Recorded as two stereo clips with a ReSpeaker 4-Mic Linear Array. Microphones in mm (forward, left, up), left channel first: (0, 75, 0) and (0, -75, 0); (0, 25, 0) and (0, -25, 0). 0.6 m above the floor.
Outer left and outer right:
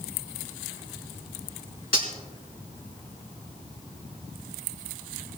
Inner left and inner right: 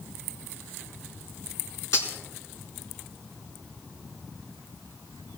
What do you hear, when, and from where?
1.9 s cutlery clinking: 75° left (ahead or behind), 4 m